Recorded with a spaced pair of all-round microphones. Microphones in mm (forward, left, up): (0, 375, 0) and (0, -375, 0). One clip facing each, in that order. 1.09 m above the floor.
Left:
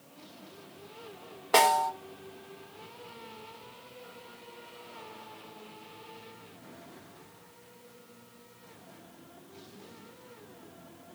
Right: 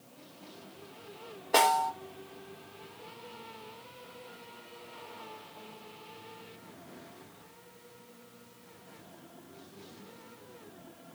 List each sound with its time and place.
1.5 s a snare drum: 45° left (ahead or behind), 0.5 m